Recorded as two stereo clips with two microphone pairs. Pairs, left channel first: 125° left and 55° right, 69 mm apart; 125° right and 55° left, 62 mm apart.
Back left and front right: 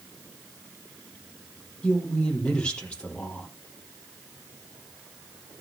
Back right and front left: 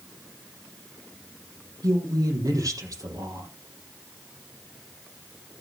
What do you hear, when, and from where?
1.8 s a woman speaking: 50° left, 5 m